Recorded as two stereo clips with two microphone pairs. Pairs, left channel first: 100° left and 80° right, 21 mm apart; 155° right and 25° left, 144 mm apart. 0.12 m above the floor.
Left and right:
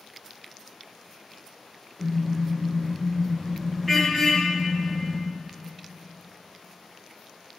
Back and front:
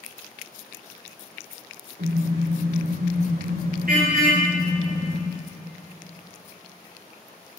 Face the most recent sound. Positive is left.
turn(degrees=0)